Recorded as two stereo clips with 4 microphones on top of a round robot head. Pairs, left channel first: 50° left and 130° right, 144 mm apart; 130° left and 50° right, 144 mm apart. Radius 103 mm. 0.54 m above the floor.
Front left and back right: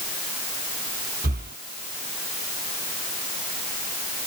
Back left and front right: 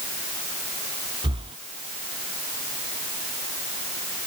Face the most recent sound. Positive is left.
turn(degrees=-110)